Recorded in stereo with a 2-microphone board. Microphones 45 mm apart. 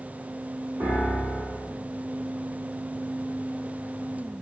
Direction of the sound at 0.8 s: 65° right (ahead or behind).